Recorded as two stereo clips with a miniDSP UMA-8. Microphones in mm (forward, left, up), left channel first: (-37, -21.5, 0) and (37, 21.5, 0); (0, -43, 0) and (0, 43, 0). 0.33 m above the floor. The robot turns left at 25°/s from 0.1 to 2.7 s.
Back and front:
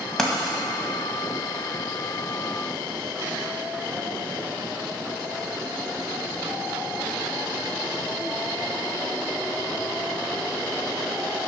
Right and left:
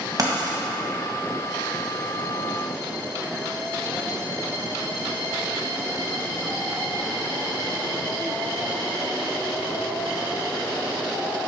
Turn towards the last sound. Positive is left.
turn(degrees=65)